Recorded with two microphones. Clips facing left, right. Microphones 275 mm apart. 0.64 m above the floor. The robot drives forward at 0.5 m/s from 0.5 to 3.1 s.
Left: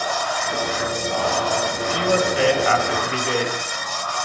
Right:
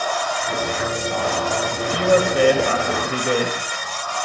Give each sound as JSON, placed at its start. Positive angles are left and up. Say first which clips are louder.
{"t": 1.9, "sound": "a woman speaking", "louder": "right 4 dB", "side_deg": -55, "distance_m": 3.0}